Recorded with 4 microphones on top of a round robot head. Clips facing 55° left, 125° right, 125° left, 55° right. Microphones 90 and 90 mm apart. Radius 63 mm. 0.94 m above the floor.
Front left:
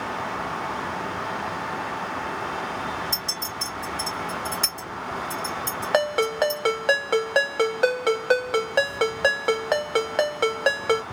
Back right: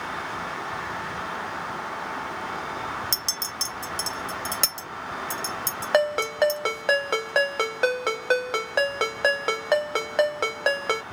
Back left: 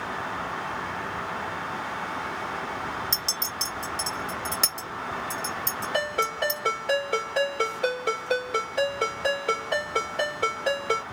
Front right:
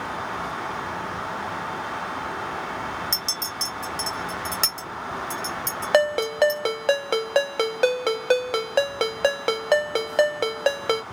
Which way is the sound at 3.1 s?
145° right.